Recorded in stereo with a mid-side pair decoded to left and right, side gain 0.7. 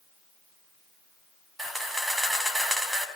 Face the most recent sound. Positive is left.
turn(degrees=-10)